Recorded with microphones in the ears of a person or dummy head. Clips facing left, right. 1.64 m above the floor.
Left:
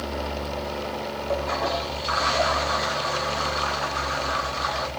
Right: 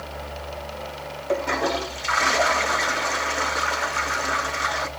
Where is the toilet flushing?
35° right (ahead or behind), 1.0 m.